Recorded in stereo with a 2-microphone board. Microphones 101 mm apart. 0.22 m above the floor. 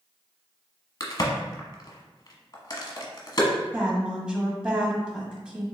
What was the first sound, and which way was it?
A crack, 40° left (ahead or behind).